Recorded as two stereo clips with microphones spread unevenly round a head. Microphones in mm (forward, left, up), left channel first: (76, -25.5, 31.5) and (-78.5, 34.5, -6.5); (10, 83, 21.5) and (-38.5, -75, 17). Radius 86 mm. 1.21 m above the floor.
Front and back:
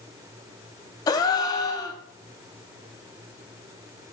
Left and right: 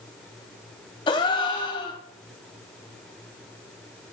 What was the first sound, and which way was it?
A gasp, 20° left.